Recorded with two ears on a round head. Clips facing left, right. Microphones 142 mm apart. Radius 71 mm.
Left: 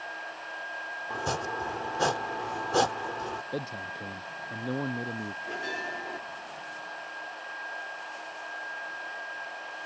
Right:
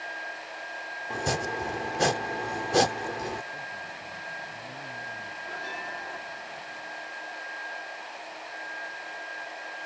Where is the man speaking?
85° left.